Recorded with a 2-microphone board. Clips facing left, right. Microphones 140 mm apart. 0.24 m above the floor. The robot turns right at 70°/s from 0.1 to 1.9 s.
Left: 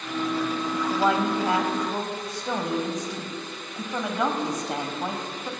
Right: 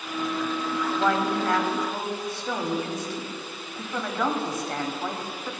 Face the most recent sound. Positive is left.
turn(degrees=15)  # may be behind; listen again after turning